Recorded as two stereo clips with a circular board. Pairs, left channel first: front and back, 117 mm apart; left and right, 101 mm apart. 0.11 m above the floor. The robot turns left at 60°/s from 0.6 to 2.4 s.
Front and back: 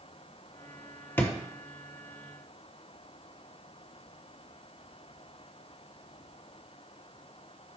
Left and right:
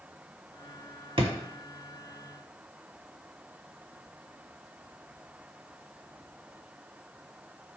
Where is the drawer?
70° right, 0.7 m; by 1.3 s 80° right, 0.7 m.